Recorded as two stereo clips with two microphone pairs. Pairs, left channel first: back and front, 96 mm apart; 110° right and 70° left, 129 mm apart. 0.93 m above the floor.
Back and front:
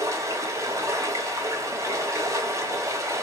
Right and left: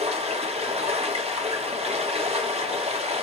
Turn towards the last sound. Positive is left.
turn(degrees=50)